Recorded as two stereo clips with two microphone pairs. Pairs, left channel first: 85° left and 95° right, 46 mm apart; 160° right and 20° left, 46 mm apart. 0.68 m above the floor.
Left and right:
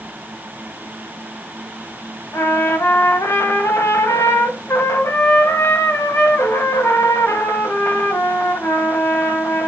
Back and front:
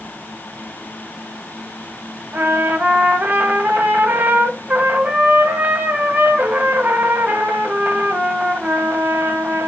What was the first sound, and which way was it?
A trumpet, 75° left.